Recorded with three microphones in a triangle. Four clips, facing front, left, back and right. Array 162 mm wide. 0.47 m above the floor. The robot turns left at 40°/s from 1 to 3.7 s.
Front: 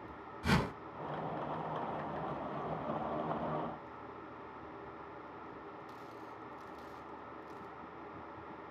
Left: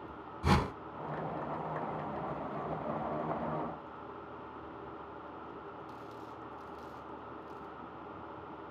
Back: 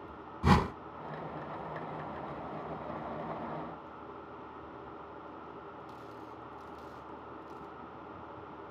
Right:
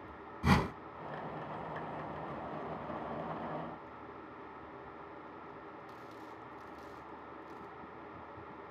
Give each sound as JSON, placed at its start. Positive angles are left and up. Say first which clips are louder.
{"t": 0.4, "sound": "a whoosh", "louder": "even, back 6 dB", "azimuth_deg": -175, "distance_m": 0.9}